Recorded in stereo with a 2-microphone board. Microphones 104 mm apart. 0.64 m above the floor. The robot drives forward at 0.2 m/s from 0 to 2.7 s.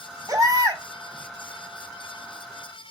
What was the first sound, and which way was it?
A baby crying, 35° right (ahead or behind).